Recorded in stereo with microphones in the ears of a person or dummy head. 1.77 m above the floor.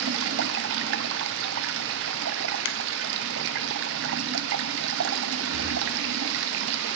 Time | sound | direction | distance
0.0 | running water | 65° right (ahead or behind) | 0.8 m
2.6 | a finger snap | 65° left (ahead or behind) | 0.6 m
5.5 | breathing | 5° right (ahead or behind) | 9.5 m